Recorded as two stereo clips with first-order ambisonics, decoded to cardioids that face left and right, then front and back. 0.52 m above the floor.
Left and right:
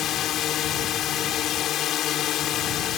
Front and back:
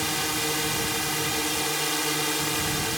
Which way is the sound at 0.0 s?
90° left.